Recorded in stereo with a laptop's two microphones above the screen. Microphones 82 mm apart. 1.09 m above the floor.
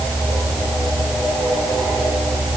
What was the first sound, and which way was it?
Only background noise.